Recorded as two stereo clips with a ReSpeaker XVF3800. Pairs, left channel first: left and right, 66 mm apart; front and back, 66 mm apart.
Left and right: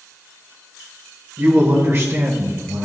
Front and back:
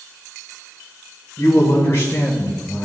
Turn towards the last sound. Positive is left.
turn(degrees=-55)